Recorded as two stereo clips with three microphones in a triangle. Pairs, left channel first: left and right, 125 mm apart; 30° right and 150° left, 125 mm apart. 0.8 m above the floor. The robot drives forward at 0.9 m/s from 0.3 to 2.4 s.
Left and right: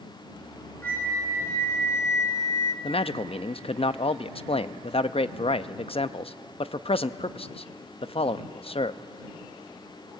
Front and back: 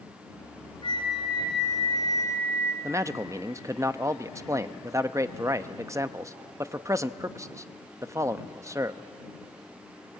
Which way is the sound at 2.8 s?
95° left.